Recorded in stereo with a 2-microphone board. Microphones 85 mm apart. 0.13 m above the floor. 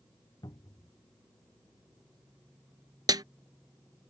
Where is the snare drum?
55° right (ahead or behind).